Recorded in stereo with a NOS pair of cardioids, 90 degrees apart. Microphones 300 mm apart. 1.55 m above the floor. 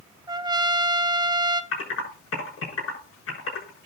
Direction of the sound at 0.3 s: 15° right.